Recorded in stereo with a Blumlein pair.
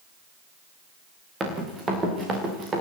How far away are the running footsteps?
About 6 m.